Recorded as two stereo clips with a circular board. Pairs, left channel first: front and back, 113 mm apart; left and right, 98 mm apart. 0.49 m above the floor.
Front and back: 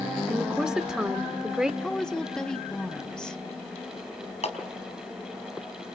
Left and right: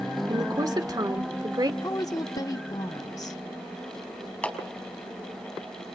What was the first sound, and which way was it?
A woman speaking, 100° right.